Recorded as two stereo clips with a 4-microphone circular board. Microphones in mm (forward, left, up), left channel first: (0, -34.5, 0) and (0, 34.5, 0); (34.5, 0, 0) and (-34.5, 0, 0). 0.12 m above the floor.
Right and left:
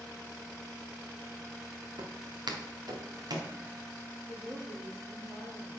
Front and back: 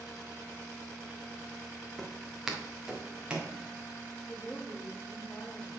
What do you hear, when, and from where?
2.0 s footsteps: 90° left, 1.5 m; by 3.5 s 110° left, 2 m
4.3 s a woman speaking: 70° left, 4.5 m